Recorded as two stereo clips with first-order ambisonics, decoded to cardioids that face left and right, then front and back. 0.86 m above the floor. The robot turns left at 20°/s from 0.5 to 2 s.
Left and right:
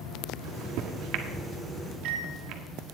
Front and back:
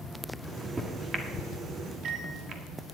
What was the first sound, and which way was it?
A microwave, 95° right.